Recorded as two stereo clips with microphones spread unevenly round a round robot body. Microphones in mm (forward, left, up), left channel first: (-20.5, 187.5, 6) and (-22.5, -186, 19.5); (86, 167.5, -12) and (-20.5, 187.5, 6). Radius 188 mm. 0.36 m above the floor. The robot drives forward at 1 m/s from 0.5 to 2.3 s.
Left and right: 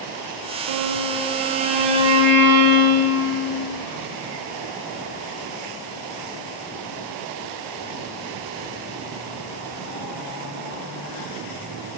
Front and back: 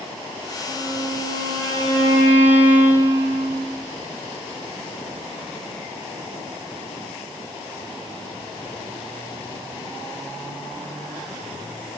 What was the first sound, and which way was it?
A violin, 105° right.